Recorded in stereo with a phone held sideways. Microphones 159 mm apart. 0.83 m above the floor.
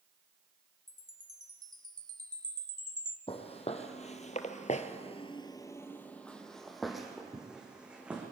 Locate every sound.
0.9 s a chime: 25° right (ahead or behind), 1.3 m
3.3 s footsteps: 40° left (ahead or behind), 2.5 m; by 8.2 s 10° right (ahead or behind), 4 m